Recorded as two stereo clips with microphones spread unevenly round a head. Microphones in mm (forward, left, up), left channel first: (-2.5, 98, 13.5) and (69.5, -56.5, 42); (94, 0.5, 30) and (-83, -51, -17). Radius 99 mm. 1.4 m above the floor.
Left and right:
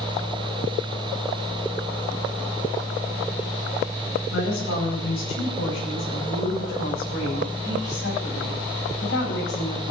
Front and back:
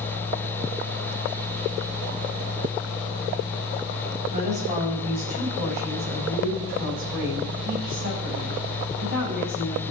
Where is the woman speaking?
135° left, 9 m; by 9.9 s 155° left, 13 m.